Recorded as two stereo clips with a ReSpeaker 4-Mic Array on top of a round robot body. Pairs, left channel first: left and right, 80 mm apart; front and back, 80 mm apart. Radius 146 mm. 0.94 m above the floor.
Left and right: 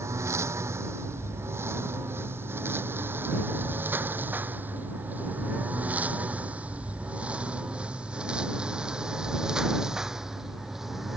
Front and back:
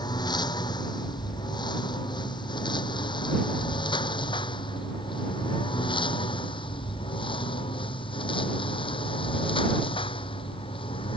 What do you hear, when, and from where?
0.0 s a lawn mower: 35° right; by 11.2 s 5° right